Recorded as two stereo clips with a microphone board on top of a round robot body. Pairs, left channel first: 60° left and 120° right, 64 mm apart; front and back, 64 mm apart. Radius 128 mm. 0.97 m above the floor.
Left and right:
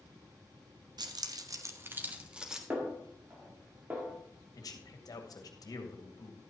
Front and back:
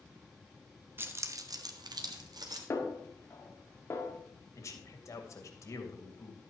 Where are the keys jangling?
125° right, 1.1 m; by 2.6 s 160° left, 1.7 m.